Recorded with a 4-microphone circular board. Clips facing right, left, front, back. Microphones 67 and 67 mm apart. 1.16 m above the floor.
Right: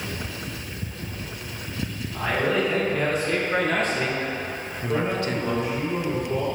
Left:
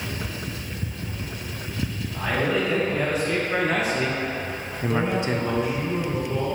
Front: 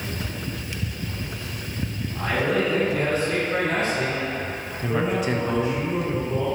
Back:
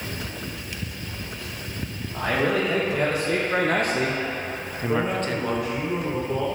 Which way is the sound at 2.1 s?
Straight behind.